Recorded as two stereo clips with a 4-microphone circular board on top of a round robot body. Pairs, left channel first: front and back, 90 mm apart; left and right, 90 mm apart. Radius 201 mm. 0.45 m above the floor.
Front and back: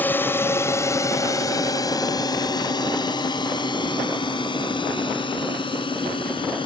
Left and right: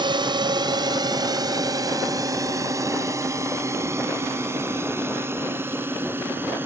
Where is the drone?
70° right; by 6.7 s 25° right.